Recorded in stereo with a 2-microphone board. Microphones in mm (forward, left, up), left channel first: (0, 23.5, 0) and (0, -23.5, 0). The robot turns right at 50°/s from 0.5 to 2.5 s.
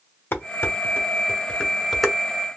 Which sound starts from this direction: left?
Dishes clattering, at 0.3 s.